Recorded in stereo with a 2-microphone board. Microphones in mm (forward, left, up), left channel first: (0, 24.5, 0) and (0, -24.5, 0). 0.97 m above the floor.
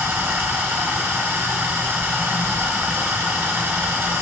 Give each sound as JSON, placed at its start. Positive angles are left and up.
{"t": 0.0, "sound": "running water", "side_deg": -45, "distance_m": 1.2}